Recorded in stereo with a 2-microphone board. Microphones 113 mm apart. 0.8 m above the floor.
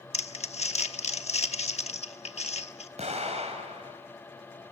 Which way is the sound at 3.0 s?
80° right.